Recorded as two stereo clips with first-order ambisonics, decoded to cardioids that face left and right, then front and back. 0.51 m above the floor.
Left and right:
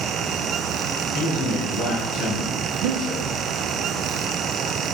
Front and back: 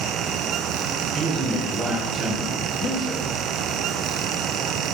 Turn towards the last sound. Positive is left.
turn(degrees=-70)